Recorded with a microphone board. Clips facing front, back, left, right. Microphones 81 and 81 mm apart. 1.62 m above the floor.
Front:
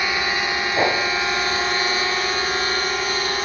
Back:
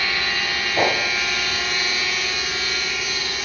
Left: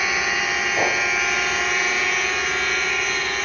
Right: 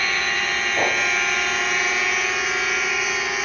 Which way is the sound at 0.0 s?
20° left.